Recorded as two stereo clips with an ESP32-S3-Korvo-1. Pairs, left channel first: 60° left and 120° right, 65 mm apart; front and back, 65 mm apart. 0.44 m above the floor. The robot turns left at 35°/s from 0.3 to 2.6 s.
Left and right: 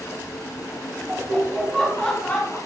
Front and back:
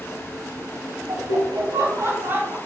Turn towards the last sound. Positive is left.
turn(degrees=110)